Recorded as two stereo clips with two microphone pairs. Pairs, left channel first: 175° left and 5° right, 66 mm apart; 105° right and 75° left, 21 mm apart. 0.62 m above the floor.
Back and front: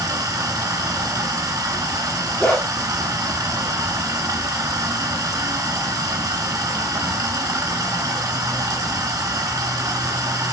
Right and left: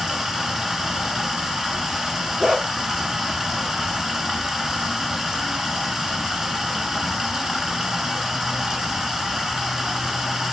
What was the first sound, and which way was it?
Running water, 10° left.